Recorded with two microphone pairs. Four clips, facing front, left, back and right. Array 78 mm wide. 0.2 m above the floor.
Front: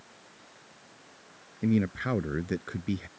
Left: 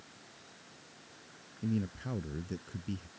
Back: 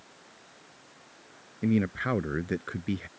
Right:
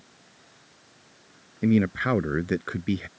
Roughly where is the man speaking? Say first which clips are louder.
Right 14 dB, even; right.